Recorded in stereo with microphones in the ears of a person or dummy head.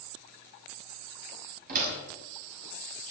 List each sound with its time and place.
1.7 s a door slam: 50° right (ahead or behind), 6 m